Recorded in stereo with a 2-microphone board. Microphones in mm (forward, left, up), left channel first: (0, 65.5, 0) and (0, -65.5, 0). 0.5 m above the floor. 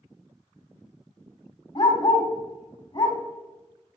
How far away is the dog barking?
About 1.5 m.